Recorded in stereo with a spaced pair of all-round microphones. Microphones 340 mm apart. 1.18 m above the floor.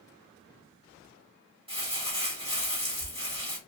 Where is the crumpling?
15° right (ahead or behind), 1.2 m.